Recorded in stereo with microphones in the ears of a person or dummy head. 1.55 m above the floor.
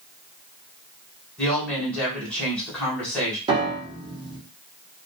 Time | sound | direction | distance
1.4 | a woman speaking | 5° left (ahead or behind) | 1.4 m
3.5 | a piano | 25° right (ahead or behind) | 0.8 m